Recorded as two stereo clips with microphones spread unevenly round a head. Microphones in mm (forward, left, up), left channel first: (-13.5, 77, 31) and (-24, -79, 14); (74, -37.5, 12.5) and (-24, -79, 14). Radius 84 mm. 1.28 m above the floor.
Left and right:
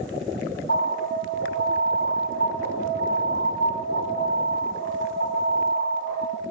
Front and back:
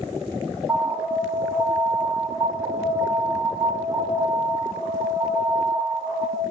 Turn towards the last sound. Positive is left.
turn(degrees=115)